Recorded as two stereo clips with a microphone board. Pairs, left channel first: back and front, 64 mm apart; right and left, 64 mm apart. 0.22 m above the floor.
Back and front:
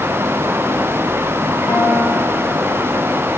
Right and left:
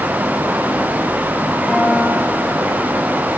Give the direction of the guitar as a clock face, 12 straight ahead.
6 o'clock.